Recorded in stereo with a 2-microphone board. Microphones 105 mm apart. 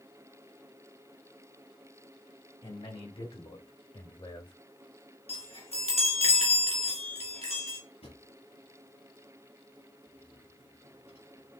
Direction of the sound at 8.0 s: 80° left.